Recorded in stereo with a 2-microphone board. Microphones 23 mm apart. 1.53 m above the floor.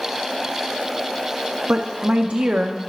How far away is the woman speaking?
About 1.0 m.